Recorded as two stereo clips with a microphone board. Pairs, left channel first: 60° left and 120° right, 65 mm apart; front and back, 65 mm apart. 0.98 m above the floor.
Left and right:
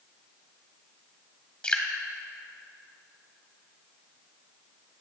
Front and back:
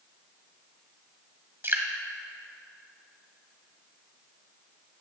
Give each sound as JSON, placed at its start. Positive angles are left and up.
{"t": 1.6, "sound": "dripping", "azimuth_deg": 130, "distance_m": 1.6}